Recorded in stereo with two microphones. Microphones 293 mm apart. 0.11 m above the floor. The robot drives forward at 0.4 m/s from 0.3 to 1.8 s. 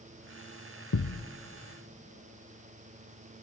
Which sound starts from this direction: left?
A thud, at 0.9 s.